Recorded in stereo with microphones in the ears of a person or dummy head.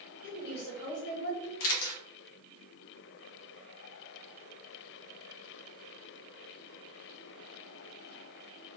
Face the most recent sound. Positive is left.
turn(degrees=75)  # may be behind; listen again after turning